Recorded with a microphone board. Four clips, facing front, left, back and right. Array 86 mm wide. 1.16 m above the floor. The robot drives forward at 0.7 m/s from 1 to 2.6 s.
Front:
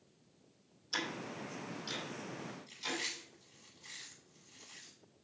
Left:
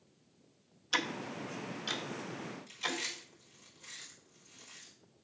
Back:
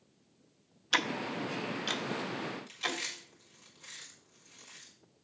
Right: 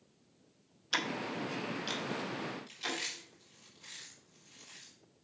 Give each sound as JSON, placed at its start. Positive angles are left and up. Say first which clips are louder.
{"t": 0.9, "sound": "ticking", "louder": "right 1 dB, back 8 dB", "azimuth_deg": -175, "distance_m": 0.7}
{"t": 2.7, "sound": "chewing", "louder": "left 1 dB, back 4 dB", "azimuth_deg": -160, "distance_m": 4.5}